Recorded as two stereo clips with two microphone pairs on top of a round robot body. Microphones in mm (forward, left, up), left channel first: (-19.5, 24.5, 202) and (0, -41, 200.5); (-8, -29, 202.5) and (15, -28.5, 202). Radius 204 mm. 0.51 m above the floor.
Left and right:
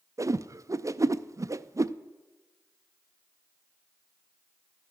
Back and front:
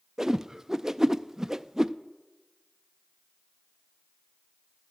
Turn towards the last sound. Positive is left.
turn(degrees=-60)